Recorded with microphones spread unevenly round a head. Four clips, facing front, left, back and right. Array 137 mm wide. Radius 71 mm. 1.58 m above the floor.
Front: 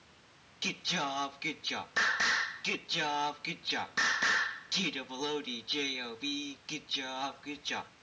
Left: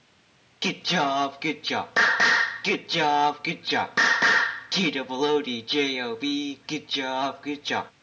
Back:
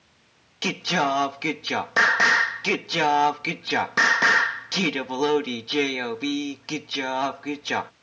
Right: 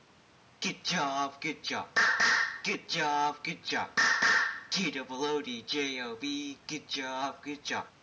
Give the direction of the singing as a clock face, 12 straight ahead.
7 o'clock.